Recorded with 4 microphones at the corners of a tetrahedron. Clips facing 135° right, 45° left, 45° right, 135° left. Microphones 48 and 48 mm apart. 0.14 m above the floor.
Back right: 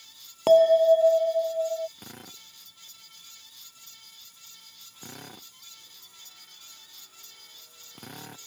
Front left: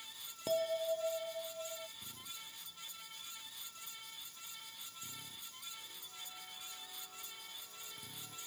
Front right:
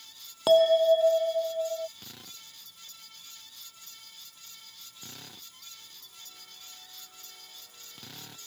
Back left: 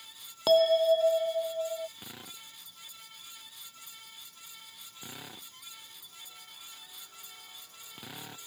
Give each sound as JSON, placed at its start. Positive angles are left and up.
{"t": 0.5, "sound": "a bell", "azimuth_deg": -130}
{"t": 2.0, "sound": "a drill", "azimuth_deg": -155}